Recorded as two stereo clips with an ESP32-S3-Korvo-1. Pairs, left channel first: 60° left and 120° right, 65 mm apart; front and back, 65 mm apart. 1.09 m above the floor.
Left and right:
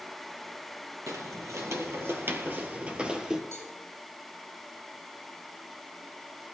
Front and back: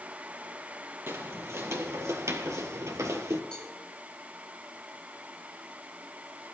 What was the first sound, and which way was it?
Footsteps, 135° right.